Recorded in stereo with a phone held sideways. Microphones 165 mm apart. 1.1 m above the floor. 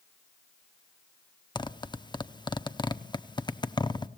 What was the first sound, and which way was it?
A zipper, 25° left (ahead or behind).